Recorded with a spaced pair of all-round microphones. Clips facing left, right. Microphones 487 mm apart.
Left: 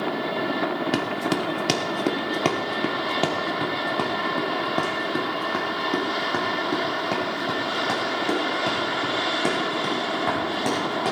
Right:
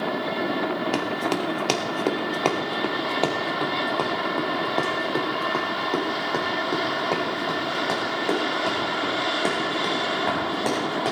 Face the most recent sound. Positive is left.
turn(degrees=25)  # may be behind; listen again after turning